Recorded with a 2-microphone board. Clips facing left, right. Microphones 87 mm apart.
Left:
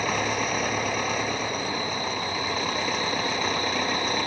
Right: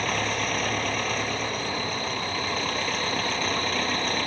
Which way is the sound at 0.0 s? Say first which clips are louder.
Left 1 dB; 10° left (ahead or behind).